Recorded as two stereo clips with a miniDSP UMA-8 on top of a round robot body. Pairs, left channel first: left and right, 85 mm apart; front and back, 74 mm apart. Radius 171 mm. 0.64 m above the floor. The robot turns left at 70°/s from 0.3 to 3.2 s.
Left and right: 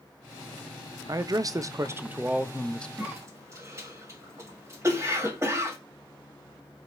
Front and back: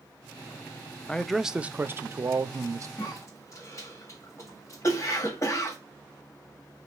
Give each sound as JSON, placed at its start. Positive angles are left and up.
{"t": 1.1, "sound": "a man speaking", "azimuth_deg": -75, "distance_m": 0.6}
{"t": 3.0, "sound": "a cough", "azimuth_deg": -25, "distance_m": 1.9}